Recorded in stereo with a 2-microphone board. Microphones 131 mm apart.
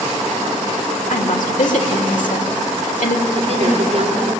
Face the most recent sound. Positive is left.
turn(degrees=-50)  # may be behind; listen again after turning